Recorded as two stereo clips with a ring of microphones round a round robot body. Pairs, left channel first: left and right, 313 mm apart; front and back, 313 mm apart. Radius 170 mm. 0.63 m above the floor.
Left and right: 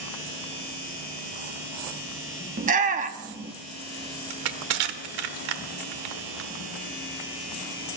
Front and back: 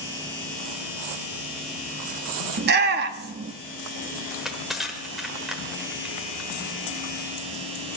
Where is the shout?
140° right, 0.7 m.